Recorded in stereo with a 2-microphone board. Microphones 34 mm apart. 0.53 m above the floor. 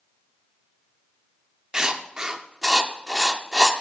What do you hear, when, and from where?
1.7 s writing: 20° right (ahead or behind), 0.6 m